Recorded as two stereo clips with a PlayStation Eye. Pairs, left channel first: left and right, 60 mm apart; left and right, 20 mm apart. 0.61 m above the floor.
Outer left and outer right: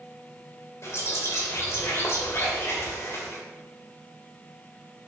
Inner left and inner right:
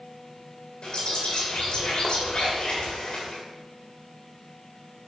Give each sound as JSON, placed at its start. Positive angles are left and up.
{"t": 0.8, "sound": "a bird", "side_deg": 50, "distance_m": 2.5}